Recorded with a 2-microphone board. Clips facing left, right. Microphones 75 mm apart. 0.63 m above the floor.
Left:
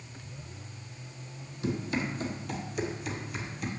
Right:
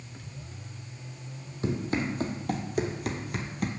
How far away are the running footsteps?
About 1.4 m.